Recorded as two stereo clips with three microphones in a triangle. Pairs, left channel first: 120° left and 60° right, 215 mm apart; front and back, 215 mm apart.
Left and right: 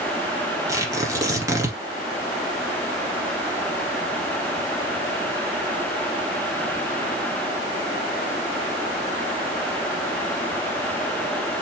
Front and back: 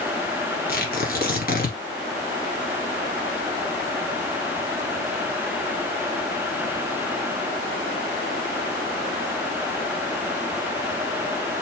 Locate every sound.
0.7 s tearing paper: 10° left, 1.8 m